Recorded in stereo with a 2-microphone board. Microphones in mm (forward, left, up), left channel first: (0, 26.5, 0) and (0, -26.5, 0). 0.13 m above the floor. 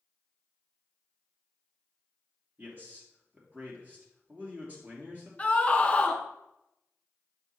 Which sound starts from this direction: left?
A scream, at 5.4 s.